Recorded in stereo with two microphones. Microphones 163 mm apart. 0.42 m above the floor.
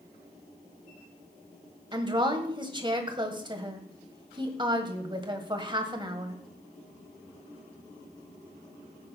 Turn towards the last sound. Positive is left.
turn(degrees=-30)  # may be behind; listen again after turning